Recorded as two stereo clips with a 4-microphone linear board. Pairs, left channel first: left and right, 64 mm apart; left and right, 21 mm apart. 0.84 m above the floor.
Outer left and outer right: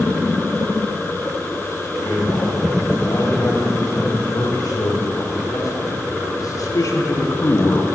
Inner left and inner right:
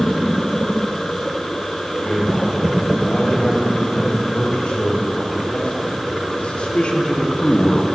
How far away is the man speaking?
About 5.5 m.